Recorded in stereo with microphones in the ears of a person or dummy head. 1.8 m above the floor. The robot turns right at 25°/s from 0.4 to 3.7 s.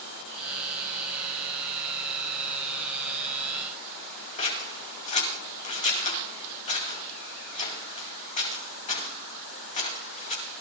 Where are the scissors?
50° left (ahead or behind), 2 m.